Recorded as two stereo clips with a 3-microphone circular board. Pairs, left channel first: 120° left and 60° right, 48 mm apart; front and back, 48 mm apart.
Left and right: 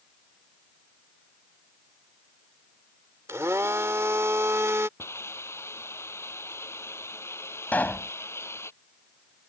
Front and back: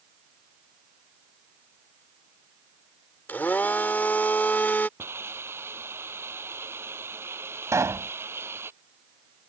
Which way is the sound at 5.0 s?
150° left.